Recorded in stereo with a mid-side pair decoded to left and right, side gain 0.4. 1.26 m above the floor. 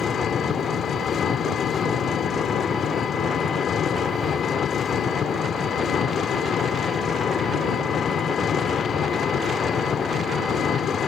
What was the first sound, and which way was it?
An engine running, 60° left.